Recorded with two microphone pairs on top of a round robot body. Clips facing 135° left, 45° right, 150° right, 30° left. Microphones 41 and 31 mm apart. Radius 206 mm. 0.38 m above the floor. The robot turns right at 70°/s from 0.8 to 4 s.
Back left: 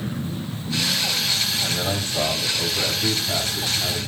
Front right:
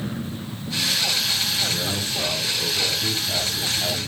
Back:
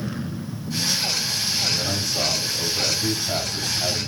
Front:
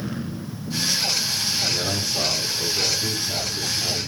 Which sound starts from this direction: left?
A man speaking, at 1.6 s.